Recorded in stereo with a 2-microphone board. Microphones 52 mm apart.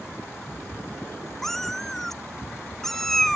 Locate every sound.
1.4 s a cat meowing: 5° left (ahead or behind)